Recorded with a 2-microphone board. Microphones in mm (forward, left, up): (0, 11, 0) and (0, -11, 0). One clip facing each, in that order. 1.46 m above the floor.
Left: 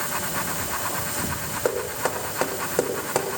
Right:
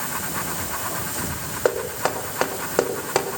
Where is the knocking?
25° right (ahead or behind), 2.5 m.